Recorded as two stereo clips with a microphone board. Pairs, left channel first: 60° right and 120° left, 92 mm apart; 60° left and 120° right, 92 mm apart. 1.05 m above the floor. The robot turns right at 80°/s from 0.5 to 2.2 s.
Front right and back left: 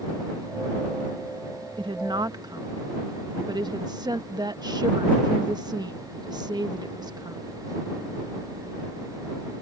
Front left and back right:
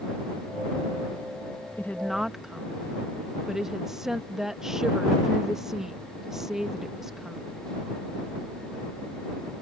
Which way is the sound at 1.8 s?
120° left.